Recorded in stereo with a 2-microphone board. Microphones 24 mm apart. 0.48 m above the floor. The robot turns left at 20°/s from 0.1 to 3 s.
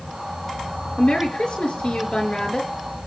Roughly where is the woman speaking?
Left.